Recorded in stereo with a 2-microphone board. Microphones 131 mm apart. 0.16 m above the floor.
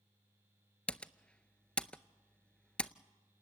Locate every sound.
0.9 s typing on a keyboard: 10° left (ahead or behind), 0.5 m